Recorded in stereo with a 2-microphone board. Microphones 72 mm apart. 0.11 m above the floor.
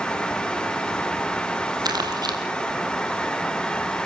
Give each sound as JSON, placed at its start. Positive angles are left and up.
{"t": 1.9, "sound": "crumpling", "side_deg": -65, "distance_m": 4.0}